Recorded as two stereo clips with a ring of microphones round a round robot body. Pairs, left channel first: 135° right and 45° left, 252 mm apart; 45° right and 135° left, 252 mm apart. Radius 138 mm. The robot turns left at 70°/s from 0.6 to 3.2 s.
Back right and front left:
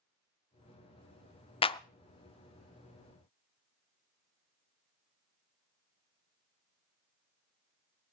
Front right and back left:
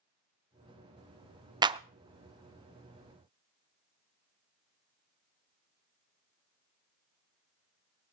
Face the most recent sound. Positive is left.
turn(degrees=75)